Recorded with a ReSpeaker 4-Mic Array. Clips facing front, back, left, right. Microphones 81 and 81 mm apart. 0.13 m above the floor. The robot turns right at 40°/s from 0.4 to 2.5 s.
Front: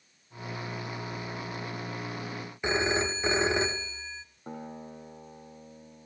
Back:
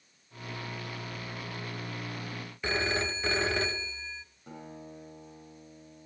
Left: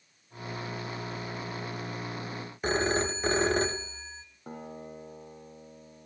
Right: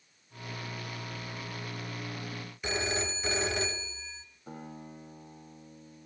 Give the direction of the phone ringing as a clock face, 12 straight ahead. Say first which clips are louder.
Front 3 dB, left 6 dB; 10 o'clock.